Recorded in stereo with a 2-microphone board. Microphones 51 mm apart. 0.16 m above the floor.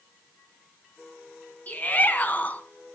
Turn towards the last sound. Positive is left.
turn(degrees=30)  # may be behind; listen again after turning